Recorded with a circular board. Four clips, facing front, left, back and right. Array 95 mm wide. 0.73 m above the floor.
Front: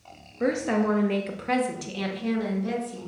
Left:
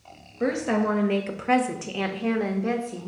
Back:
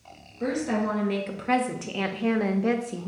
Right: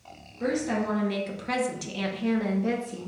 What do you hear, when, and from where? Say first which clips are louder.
0.4 s a woman speaking: left 3 dB, front 2 dB; 40° left, 0.9 m; by 3.1 s 170° left, 1.1 m